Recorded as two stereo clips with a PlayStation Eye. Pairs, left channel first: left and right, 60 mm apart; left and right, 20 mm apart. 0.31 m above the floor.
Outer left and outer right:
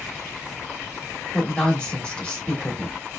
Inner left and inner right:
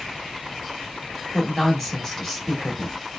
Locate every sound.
1.3 s a woman speaking: 15° left (ahead or behind), 1.3 m